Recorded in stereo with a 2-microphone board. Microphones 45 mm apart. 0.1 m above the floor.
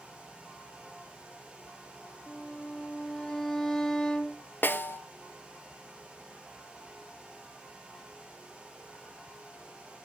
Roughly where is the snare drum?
Left.